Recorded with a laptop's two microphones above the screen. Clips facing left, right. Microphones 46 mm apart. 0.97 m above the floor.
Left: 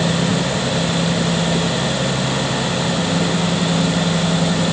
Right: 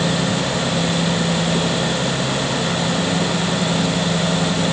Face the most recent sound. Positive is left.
No sound to turn to.